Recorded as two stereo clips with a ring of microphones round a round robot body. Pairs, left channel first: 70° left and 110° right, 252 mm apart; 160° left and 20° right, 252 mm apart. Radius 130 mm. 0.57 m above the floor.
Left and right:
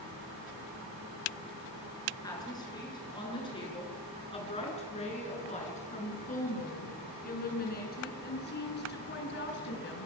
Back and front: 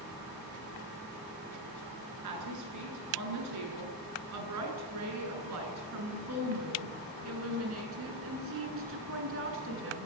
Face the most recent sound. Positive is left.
turn(degrees=20)